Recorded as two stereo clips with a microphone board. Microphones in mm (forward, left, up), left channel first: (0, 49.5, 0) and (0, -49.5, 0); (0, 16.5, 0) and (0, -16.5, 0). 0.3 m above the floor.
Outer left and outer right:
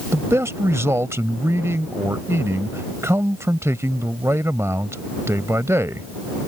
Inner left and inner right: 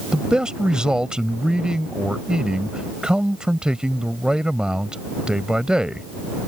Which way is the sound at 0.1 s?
30° right (ahead or behind).